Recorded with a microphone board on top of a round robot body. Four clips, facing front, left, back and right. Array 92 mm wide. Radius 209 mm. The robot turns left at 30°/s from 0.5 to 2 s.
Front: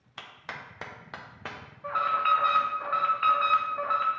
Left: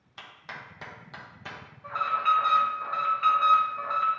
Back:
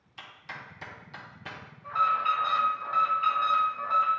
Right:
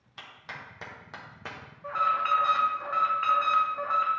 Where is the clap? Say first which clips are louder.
Even, front 2 dB; straight ahead, 0.9 m; by 1.6 s 30° right, 0.9 m.